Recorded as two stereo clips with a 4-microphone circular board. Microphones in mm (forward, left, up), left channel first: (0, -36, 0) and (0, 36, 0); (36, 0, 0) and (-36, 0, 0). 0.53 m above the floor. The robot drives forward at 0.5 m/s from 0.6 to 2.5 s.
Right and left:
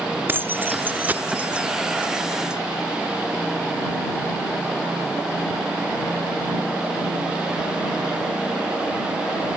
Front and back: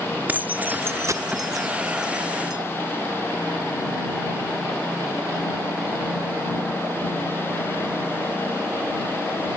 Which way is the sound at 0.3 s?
130° left.